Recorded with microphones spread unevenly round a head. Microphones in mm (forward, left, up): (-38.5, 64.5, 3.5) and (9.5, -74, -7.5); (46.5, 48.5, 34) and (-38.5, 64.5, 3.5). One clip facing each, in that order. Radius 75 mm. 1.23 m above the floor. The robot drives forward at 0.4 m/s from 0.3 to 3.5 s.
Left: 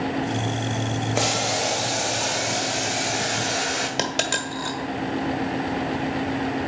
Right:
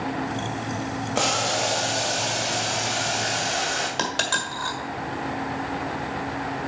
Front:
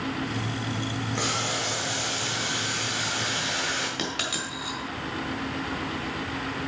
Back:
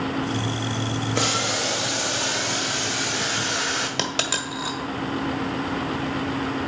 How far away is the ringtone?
No ringtone in this recording.